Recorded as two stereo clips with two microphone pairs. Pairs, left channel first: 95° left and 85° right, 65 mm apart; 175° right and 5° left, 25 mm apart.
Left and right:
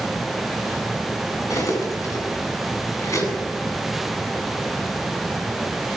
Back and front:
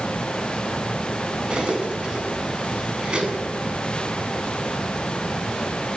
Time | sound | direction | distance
1.5 | cutlery clinking | 60° left | 7.5 m